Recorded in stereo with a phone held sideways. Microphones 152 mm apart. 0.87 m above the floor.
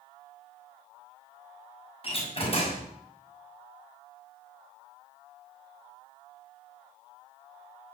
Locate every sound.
2.0 s a door slam: 40° left (ahead or behind), 6 m